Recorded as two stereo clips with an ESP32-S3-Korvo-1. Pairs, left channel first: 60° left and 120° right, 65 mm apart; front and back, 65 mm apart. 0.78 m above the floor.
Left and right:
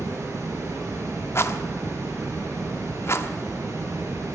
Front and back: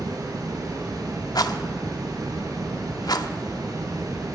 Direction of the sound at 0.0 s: 165° right.